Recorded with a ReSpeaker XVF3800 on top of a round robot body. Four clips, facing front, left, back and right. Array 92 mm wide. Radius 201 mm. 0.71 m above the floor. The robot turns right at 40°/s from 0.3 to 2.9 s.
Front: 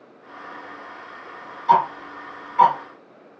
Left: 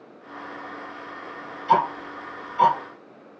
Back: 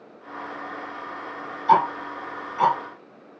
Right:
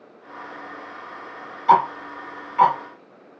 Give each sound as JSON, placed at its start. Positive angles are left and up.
{"t": 1.7, "sound": "ticking", "azimuth_deg": -90, "distance_m": 0.9}